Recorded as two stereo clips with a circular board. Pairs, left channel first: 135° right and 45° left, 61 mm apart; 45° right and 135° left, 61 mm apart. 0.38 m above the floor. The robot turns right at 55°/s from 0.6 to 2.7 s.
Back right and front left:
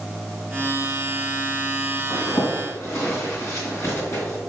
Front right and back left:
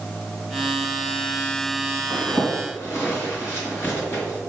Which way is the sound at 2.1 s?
125° right.